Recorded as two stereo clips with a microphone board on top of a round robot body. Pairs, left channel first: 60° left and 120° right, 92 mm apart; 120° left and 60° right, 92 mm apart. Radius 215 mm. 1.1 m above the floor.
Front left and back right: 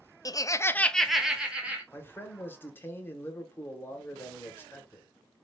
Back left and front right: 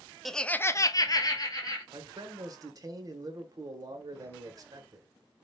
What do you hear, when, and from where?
0.2 s laughter: 35° left, 0.7 m; by 1.8 s 165° left, 1.1 m
1.9 s a man speaking: 10° right, 0.8 m